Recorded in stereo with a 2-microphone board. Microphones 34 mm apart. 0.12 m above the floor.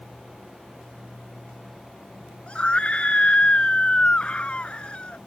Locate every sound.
2.5 s a scream: 35° left (ahead or behind)